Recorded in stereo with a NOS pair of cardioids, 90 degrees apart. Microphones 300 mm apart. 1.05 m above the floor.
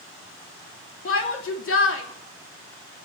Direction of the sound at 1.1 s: 45° left.